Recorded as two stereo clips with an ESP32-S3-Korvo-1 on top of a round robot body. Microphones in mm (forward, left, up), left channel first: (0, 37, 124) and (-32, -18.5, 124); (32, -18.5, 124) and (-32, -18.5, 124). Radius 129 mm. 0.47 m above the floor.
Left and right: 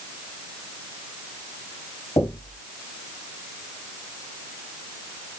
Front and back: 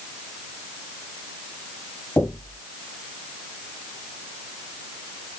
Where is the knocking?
75° left, 3 m.